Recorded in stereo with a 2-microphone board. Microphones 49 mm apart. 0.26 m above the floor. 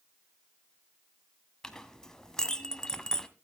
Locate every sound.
1.6 s a clink: 10° left (ahead or behind), 0.9 m